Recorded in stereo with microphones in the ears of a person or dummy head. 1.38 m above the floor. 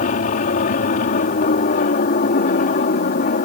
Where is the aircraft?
45° left (ahead or behind).